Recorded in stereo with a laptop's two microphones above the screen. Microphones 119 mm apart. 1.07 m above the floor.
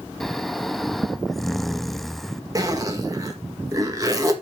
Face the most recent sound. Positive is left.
turn(degrees=-30)  # may be behind; listen again after turning